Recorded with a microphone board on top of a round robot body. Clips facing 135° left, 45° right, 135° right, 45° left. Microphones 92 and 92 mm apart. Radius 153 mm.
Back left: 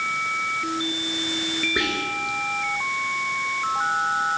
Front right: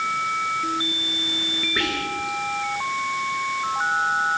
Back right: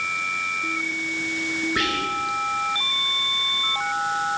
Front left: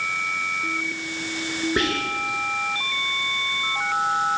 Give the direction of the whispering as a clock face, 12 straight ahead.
10 o'clock.